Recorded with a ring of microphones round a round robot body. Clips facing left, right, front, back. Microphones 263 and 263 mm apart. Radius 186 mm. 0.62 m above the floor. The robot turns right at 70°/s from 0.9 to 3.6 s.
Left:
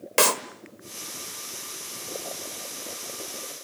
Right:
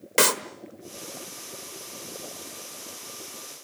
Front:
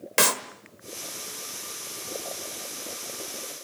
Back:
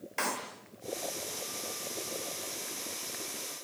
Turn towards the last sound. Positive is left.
turn(degrees=165)